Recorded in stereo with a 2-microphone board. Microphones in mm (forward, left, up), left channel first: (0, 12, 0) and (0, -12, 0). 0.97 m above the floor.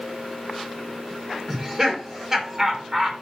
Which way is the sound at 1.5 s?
20° right (ahead or behind).